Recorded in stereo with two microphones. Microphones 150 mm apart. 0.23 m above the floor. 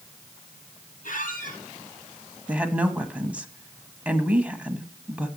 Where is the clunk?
I don't hear a clunk.